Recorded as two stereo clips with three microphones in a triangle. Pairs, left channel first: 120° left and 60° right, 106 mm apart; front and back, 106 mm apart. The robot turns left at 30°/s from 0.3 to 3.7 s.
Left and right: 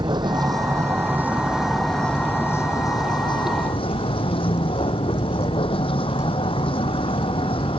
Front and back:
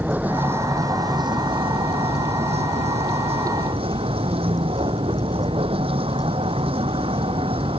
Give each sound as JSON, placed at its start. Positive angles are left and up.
{"t": 0.0, "sound": "a vehicle", "azimuth_deg": -105}